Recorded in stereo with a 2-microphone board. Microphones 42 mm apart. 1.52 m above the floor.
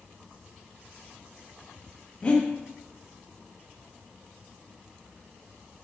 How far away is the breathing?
About 1.1 m.